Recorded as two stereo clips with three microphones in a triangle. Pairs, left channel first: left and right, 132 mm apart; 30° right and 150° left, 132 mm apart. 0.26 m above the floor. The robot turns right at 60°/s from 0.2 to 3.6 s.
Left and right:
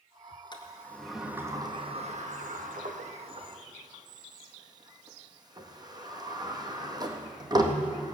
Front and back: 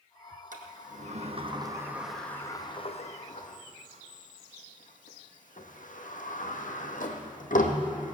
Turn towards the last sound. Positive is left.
turn(degrees=-30)